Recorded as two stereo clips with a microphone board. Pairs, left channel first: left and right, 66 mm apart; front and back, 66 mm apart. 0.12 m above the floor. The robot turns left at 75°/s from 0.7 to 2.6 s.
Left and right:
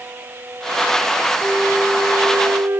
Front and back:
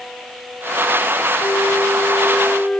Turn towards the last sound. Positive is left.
turn(degrees=-65)